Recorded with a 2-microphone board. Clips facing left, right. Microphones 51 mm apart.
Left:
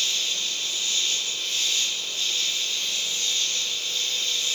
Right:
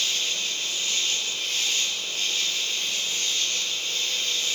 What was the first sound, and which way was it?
An insect, 75° right (ahead or behind).